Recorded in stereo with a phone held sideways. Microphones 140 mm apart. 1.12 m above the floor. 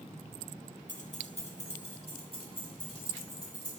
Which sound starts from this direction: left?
Keys jangling, at 0.9 s.